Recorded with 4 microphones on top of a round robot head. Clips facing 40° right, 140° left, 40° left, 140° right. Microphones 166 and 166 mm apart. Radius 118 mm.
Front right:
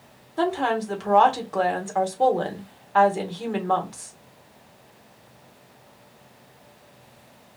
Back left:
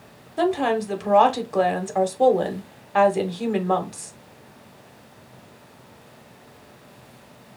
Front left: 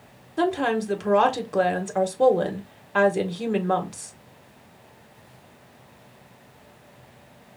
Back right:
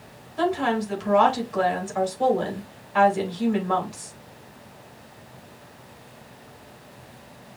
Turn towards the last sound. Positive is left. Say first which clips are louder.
# back left 2 dB, front left 1 dB
turn(degrees=70)